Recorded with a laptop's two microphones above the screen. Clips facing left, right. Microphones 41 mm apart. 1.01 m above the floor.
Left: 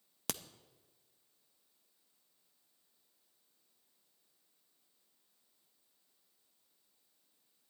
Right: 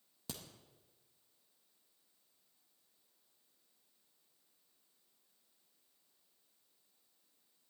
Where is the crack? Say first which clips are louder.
Left 6 dB; 80° left, 0.6 m.